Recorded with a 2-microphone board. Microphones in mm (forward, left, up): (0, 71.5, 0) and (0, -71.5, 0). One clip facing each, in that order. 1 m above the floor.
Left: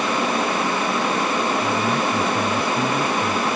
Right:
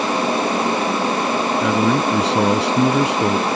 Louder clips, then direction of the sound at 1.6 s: Right 4 dB; 85° right.